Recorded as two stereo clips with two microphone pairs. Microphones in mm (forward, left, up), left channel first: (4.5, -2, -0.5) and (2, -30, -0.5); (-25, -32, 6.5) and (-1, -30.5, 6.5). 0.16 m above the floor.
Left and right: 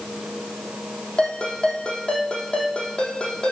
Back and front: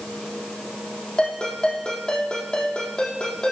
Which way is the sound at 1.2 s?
140° left.